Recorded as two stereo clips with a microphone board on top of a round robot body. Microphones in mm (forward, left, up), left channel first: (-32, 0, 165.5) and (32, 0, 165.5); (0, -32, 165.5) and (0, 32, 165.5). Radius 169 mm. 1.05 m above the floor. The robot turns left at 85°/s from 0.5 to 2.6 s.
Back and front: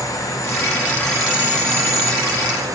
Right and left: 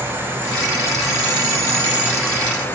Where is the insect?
150° left, 2 m; by 2.8 s 30° right, 2 m.